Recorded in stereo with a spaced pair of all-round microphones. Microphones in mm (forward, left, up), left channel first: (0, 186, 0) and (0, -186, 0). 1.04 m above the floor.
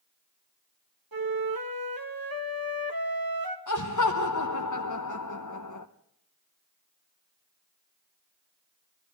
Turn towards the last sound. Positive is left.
turn(degrees=50)  # may be behind; listen again after turning